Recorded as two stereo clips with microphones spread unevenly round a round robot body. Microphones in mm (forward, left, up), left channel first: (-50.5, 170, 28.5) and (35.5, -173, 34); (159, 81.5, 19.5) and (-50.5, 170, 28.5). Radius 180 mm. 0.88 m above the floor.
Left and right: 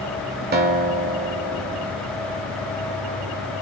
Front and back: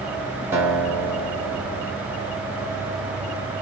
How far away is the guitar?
About 0.7 m.